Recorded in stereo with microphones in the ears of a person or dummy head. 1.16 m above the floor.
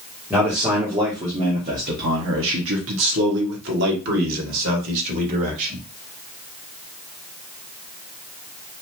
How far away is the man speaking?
About 1.6 m.